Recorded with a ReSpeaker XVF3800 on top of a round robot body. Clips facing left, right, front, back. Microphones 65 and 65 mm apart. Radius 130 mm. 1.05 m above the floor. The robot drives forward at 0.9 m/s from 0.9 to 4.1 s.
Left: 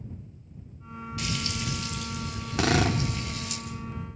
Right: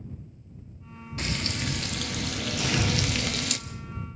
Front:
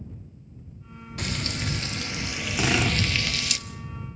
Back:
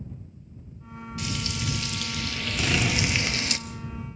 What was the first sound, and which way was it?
Frying, 40° right.